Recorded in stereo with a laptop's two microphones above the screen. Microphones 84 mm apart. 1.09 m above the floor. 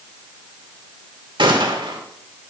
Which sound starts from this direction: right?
A gunshot, at 1.4 s.